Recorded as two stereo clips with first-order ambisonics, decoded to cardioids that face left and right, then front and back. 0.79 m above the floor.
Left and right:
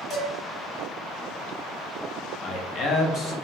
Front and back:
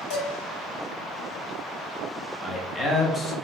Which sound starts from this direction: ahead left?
A man speaking, at 2.4 s.